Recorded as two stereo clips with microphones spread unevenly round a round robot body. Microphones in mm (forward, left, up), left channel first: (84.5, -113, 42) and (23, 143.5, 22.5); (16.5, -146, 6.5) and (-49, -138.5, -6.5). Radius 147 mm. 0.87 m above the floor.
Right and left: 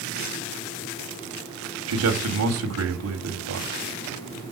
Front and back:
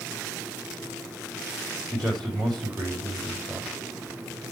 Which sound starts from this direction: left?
A man speaking, at 1.9 s.